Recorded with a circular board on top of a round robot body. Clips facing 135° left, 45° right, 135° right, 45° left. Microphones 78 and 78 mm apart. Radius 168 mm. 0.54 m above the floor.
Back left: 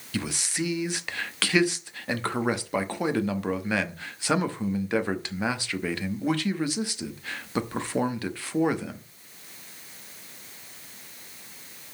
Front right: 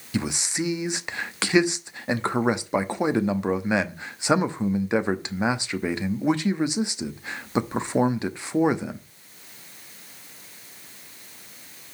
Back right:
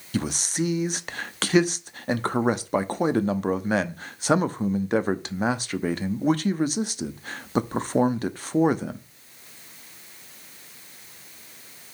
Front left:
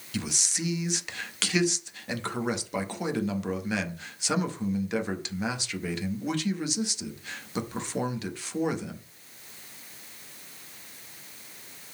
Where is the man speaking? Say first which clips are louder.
Front right 3 dB, back right 7 dB; 105° right, 1.2 m.